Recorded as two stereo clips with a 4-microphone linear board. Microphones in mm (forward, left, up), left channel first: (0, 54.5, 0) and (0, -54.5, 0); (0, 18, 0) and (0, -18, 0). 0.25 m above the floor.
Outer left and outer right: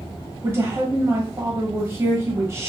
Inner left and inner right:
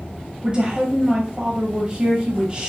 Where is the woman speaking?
25° right (ahead or behind), 1.5 m.